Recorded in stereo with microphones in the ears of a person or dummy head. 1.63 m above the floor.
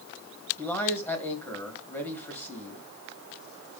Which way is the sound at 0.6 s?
15° left (ahead or behind).